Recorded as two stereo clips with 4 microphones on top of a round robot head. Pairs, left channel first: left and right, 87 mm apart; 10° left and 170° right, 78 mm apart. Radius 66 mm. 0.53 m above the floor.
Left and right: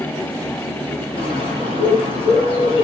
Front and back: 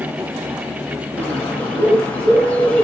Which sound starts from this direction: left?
A bird, at 1.2 s.